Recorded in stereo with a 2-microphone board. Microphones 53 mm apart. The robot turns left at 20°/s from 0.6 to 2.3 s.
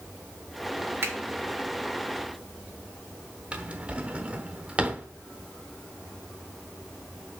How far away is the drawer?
About 0.9 m.